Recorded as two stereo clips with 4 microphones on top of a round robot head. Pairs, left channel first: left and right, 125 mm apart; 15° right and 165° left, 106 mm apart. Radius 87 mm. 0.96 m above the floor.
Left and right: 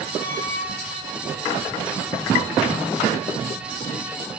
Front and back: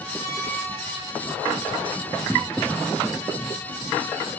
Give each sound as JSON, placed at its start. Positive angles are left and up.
{"t": 0.2, "sound": "a squeak", "azimuth_deg": -10, "distance_m": 1.4}